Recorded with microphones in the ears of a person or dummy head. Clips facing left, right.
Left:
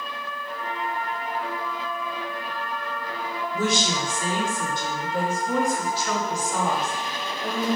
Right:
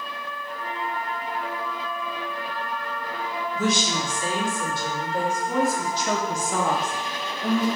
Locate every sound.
3.5 s a woman speaking: 30° left (ahead or behind), 1.9 m; by 7.7 s 75° right (ahead or behind), 1.1 m